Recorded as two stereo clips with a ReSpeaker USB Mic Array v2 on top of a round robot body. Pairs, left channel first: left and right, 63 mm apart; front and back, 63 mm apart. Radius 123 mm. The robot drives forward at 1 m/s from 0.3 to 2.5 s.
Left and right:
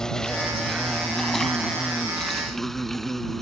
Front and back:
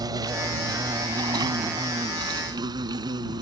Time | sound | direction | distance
0.0 | an insect | 170° left | ?